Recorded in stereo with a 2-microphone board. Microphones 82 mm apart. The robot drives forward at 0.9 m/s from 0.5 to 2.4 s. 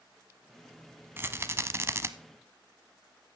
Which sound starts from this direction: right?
A rattle, at 1.2 s.